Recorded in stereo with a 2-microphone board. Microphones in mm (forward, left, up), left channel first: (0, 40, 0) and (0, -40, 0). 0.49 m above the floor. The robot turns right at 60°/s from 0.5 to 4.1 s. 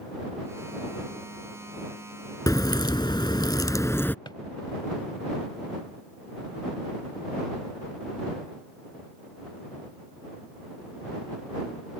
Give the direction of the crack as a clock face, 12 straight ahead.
10 o'clock.